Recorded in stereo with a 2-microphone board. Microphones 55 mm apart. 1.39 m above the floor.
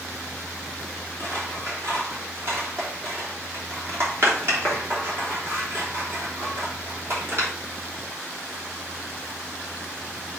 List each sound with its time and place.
1.2 s scissors: 45° right (ahead or behind), 3.5 m